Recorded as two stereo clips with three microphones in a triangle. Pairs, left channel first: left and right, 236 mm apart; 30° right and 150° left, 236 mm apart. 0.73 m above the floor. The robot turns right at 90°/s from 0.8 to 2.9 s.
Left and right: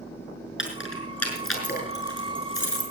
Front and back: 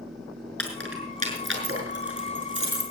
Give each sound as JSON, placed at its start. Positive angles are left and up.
{"t": 0.6, "sound": "keys jangling", "azimuth_deg": 50, "distance_m": 5.5}